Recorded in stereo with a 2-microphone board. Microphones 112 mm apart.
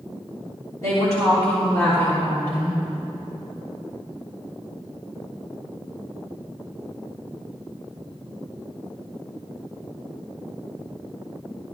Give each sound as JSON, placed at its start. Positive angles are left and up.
{"t": 0.8, "sound": "a woman speaking", "side_deg": 30, "distance_m": 4.0}